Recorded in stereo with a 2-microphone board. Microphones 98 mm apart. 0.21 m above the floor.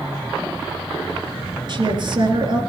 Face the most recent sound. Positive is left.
turn(degrees=-45)  # may be behind; listen again after turning